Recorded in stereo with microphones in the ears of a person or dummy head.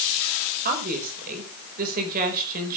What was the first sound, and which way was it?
A woman speaking, 50° right (ahead or behind).